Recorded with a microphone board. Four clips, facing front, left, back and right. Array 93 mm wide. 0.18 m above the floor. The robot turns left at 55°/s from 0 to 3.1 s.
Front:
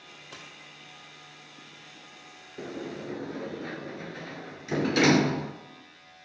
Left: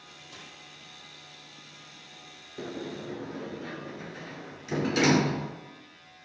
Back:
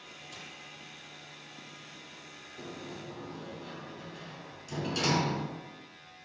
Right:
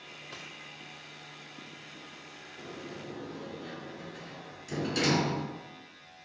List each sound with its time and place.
0.3 s a dropped coin: 35° right, 2 m; by 0.5 s 45° right, 2 m
2.6 s a sliding door: 50° left, 0.5 m; by 5.5 s 20° left, 0.5 m